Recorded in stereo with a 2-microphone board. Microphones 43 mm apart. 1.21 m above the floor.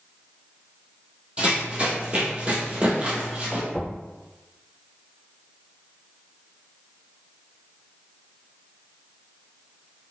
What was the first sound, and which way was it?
Running footsteps, 35° right (ahead or behind).